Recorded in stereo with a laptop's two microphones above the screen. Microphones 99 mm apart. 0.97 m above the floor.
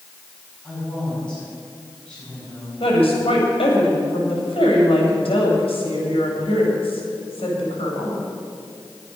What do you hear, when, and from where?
0.6 s a woman speaking: 10° left (ahead or behind), 6.5 m
2.8 s a woman speaking: 85° left, 4 m